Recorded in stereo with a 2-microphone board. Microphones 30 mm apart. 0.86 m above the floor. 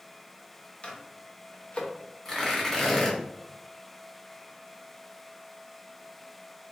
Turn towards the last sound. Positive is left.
turn(degrees=15)  # may be behind; listen again after turning